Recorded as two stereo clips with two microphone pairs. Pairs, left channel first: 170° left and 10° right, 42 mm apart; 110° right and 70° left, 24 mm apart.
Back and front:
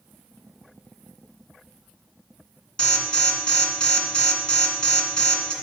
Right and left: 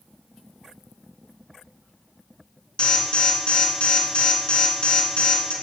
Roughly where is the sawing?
I don't hear sawing.